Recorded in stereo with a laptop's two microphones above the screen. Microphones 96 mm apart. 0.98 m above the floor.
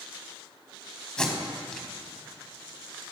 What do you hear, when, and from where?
1.2 s tape being pulled: 10° left (ahead or behind), 1.2 m